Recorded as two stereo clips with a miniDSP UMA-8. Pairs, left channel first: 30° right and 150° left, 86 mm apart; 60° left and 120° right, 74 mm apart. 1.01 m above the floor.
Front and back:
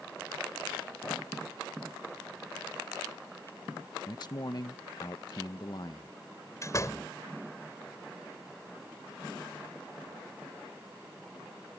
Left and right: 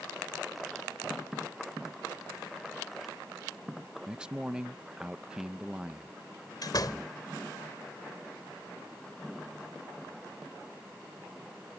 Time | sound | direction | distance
4.1 | a man speaking | 45° right | ?
6.6 | a door slam | 25° left | ?